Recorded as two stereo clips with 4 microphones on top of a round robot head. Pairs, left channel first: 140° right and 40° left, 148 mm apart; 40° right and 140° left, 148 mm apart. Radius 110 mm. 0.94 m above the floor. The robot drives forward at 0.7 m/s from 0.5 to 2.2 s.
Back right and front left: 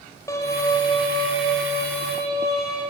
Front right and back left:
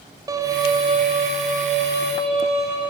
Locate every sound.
0.3 s a violin: 175° left, 0.9 m; by 2.8 s straight behind, 1.8 m